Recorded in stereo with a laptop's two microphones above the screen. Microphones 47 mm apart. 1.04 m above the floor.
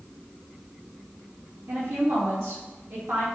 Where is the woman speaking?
65° right (ahead or behind), 2 m.